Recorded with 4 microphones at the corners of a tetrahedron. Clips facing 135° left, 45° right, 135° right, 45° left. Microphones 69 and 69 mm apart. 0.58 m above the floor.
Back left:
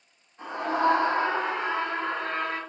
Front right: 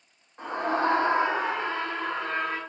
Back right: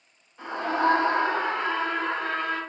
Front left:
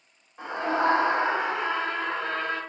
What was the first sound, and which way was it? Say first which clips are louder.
A scream: even, even; 20° right.